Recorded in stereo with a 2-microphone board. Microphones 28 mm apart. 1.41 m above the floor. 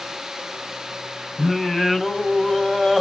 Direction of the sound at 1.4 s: Centre (ahead or behind).